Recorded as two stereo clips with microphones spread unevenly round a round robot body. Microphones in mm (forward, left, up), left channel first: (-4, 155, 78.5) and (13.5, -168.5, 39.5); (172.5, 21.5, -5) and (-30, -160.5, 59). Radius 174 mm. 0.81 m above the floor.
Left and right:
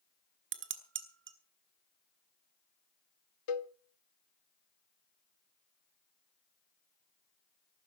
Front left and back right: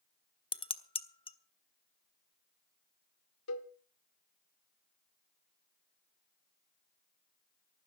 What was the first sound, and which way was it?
Dishes clattering, 30° right.